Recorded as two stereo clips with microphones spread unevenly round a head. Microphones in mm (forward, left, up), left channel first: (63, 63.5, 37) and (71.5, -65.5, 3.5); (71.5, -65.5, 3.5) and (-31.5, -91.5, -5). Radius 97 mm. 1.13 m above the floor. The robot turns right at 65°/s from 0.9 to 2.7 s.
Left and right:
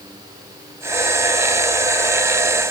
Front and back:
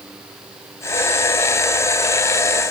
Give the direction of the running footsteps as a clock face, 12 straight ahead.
I don't hear running footsteps.